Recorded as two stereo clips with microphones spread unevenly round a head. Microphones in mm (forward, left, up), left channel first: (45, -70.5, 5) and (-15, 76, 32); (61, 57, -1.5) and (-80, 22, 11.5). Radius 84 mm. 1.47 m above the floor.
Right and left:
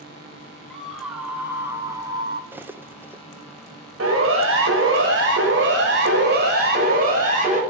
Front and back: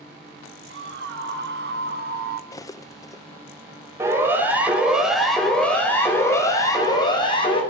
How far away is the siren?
About 5.5 m.